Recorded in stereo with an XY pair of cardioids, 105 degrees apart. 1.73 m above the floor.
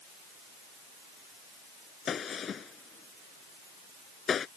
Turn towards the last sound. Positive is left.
turn(degrees=45)